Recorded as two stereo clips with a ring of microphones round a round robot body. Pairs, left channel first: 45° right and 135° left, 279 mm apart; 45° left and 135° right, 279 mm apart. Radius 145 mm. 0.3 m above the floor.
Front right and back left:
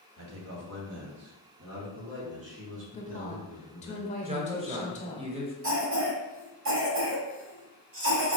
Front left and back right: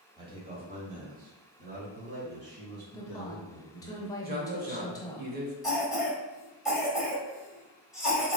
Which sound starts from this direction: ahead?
A woman speaking, at 2.9 s.